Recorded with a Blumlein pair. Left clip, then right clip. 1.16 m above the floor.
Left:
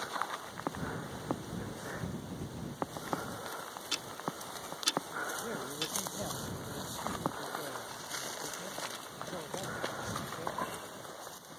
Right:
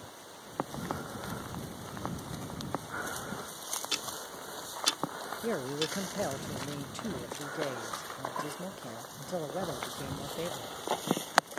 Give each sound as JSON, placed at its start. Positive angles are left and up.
{"t": 3.9, "sound": "ticking", "azimuth_deg": -5}
{"t": 5.4, "sound": "a man speaking", "azimuth_deg": -65}